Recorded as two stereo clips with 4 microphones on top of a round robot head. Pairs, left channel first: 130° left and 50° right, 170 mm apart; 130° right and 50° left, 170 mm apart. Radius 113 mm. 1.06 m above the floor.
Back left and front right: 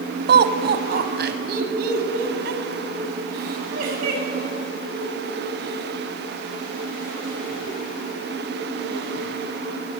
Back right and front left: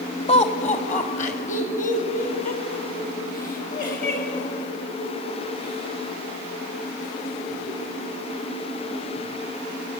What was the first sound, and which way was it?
Laughter, 75° right.